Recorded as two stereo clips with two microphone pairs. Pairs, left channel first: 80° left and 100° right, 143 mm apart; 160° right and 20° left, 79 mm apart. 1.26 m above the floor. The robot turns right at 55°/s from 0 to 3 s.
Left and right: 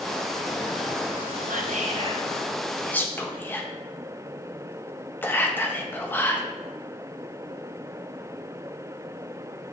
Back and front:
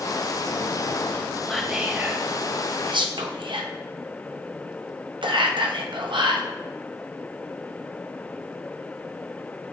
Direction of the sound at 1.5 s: 80° right.